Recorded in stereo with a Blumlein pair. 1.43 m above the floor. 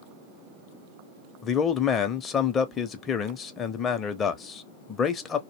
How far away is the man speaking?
About 0.5 m.